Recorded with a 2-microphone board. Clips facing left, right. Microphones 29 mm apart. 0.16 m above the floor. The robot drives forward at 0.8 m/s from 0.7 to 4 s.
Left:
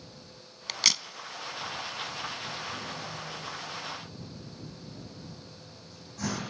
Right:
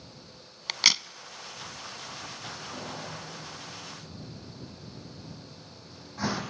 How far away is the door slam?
About 4 m.